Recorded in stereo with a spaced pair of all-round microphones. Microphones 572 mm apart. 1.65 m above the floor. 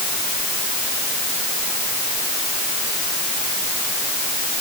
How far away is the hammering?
I don't hear hammering.